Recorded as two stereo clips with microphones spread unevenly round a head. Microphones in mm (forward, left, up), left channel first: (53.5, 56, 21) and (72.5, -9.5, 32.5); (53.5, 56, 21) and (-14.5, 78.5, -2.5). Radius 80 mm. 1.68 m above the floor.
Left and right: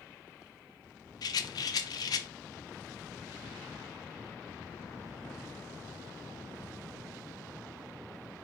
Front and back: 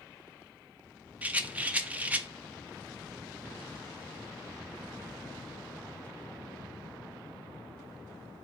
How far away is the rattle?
About 0.5 m.